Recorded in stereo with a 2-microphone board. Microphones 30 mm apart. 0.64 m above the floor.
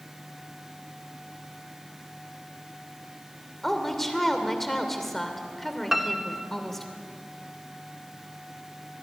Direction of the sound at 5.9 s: 10° right (ahead or behind).